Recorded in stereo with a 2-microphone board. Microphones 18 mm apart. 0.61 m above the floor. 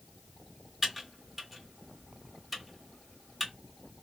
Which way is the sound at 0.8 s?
5° right (ahead or behind).